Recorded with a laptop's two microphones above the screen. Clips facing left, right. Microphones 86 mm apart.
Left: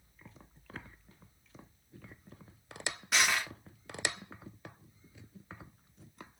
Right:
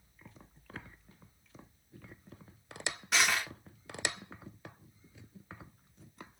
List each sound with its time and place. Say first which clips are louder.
3.1 s crushing: even; centre (ahead or behind), 0.9 m